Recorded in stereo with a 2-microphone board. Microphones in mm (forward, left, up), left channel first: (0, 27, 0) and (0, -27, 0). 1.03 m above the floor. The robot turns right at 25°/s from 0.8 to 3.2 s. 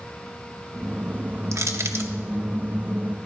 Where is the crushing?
65° right (ahead or behind), 0.7 m; by 2.1 s 50° right (ahead or behind), 0.7 m.